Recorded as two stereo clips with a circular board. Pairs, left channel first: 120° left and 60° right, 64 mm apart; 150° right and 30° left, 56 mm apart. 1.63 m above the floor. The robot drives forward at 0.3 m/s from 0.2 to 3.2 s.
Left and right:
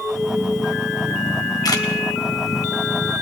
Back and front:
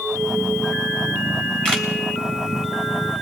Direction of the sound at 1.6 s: 140° left.